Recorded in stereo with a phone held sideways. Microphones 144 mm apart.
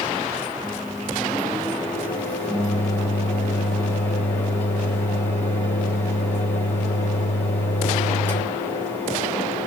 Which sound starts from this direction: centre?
A microwave, at 0.6 s.